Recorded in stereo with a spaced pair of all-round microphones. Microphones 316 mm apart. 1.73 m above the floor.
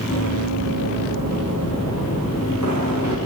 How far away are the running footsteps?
About 9.5 m.